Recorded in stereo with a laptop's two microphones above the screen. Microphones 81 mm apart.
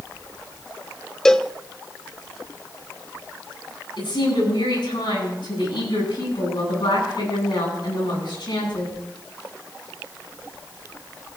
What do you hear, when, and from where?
1.2 s a cowbell: 5° left (ahead or behind), 0.6 m
4.0 s a woman speaking: 75° left (ahead or behind), 9.5 m